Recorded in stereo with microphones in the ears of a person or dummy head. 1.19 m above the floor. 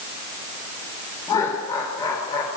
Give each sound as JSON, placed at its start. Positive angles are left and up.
{"t": 1.3, "sound": "laughter", "side_deg": 20, "distance_m": 3.5}